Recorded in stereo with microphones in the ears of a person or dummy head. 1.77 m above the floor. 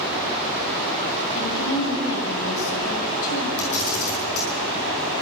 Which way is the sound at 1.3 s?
75° left (ahead or behind).